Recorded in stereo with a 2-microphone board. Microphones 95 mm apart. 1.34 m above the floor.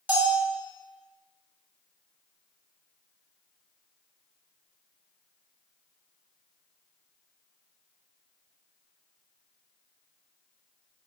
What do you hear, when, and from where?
0.1 s a bell: 15° right (ahead or behind), 1.2 m